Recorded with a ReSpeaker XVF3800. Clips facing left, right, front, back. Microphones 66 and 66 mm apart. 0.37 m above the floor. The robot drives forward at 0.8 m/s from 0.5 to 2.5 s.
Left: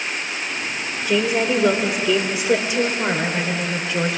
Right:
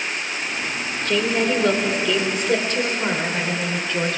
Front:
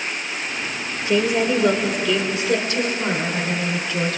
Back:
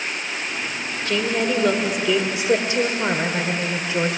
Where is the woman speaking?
25° left, 1.5 m; by 4.2 s 160° left, 1.5 m.